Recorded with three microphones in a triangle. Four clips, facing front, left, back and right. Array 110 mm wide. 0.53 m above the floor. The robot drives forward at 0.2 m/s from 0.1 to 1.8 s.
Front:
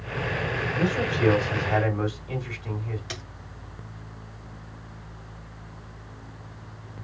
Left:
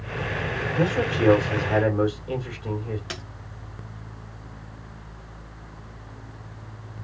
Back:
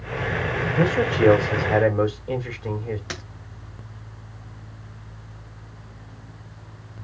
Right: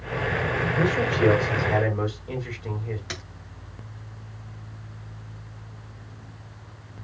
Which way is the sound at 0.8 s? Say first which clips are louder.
Even, back 6 dB; 165° left.